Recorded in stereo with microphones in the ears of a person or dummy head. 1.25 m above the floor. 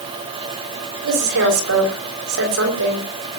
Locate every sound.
1.0 s a woman speaking: 70° right (ahead or behind), 5.5 m